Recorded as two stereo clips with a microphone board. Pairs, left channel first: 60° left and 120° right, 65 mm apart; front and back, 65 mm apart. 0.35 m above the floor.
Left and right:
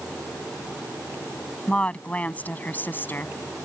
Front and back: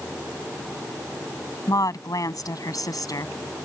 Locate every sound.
1.7 s a woman speaking: 10° right; by 3.3 s 5° left